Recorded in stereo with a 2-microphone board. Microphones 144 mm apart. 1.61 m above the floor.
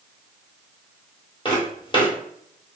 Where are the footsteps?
35° left (ahead or behind), 2.0 m.